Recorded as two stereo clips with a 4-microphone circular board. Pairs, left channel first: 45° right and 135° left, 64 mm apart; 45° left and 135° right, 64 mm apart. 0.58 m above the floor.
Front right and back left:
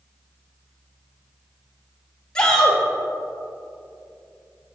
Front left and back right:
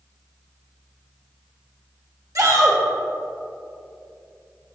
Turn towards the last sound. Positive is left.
turn(degrees=-120)